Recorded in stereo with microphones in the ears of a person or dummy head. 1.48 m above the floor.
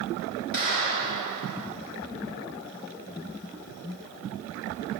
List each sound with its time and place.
0.5 s a clap: 70° left (ahead or behind), 6 m